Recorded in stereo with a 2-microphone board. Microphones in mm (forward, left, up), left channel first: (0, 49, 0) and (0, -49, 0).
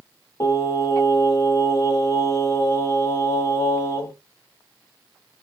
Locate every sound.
0.4 s singing: 30° left (ahead or behind), 1.2 m